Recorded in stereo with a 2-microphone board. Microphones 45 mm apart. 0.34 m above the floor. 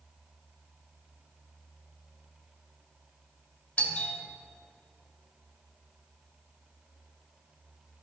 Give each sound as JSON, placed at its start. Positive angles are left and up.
{"t": 3.8, "sound": "a doorbell", "side_deg": 30, "distance_m": 3.0}